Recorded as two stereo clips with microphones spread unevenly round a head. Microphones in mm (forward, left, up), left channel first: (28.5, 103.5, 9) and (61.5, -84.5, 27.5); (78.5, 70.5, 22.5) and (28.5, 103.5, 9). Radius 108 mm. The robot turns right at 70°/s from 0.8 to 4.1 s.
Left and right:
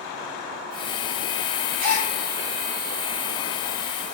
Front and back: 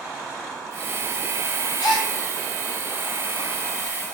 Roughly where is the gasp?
Ahead right.